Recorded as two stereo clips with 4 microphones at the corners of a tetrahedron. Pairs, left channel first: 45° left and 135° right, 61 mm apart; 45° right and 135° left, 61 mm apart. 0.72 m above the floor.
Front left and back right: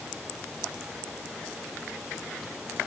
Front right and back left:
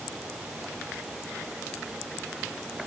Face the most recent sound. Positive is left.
No sound to turn to.